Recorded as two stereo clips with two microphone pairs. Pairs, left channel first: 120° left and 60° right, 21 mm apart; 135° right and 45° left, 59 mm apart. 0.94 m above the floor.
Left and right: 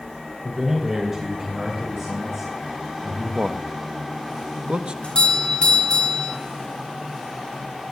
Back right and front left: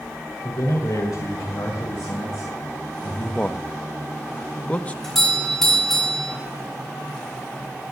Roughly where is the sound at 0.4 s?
Behind right.